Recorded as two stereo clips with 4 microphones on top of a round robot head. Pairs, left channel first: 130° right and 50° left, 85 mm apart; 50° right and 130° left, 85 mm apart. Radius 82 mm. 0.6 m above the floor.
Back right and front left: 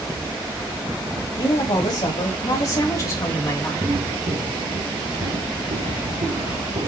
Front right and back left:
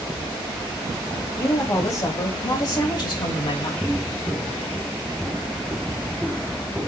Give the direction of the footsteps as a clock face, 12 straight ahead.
11 o'clock.